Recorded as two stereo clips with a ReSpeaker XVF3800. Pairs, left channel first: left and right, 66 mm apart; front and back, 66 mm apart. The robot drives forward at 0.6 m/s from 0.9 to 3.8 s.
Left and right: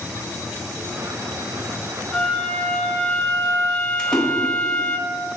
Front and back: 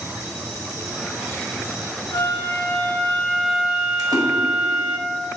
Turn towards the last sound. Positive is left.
turn(degrees=170)